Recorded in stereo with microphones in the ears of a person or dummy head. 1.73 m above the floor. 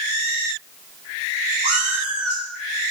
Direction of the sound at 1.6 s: 55° right (ahead or behind).